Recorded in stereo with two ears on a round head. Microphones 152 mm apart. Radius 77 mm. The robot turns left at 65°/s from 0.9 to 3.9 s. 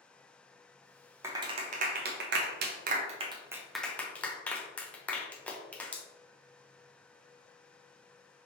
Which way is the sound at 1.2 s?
15° right (ahead or behind).